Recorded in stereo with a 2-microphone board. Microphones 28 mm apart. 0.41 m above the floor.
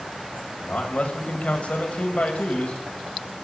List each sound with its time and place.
0.6 s a man speaking: 55° left (ahead or behind), 2.5 m